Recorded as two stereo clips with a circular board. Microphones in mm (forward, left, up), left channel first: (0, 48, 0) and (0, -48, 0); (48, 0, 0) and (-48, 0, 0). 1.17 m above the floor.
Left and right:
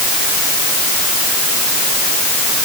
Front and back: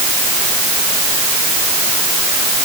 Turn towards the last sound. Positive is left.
No sound to turn to.